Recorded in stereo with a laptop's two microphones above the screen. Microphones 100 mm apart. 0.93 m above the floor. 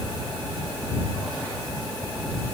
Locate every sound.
Only background noise.